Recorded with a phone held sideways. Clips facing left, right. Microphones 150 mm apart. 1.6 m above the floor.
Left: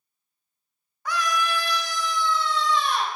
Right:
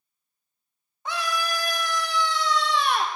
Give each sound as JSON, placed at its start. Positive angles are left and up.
{"t": 1.1, "sound": "a scream", "side_deg": -25, "distance_m": 1.3}